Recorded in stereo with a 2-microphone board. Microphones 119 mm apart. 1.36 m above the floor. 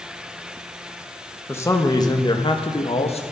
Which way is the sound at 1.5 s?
20° left (ahead or behind).